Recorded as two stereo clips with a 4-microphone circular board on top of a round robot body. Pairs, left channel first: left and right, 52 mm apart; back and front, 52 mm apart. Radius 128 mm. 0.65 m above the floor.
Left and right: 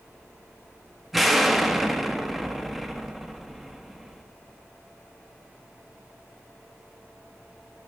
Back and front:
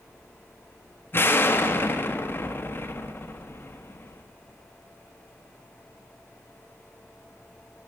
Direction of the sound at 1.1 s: 175° right.